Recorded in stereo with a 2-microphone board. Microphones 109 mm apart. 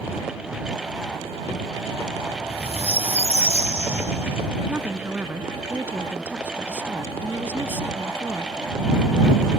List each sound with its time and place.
2.3 s a squeak: 65° right (ahead or behind)
4.7 s a woman speaking: 20° right (ahead or behind)